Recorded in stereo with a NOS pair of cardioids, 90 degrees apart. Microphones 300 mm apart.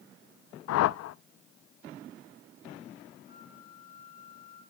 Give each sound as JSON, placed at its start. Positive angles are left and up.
{"t": 0.7, "sound": "a whoosh", "azimuth_deg": 60, "distance_m": 0.5}
{"t": 3.3, "sound": "a flute", "azimuth_deg": -25, "distance_m": 7.0}